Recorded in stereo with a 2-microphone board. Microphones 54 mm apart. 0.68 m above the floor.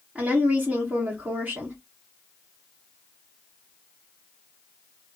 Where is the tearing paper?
I don't hear tearing paper.